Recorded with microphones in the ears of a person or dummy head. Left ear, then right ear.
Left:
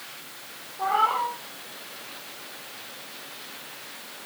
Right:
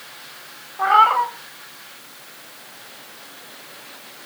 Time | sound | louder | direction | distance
0.8 | a cat meowing | right 9 dB | 55° right (ahead or behind) | 1.8 m